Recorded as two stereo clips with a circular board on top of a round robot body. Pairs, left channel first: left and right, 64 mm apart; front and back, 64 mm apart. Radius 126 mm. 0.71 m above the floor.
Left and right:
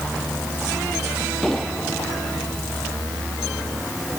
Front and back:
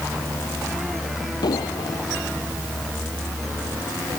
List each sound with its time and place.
1.4 s an explosion: 5° left